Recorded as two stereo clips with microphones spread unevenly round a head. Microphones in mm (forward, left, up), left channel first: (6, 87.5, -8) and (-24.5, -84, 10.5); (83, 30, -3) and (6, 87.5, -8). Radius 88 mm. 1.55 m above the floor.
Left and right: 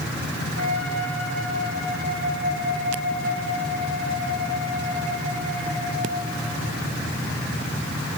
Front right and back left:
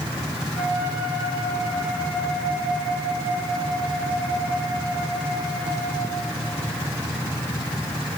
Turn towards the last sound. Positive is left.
turn(degrees=80)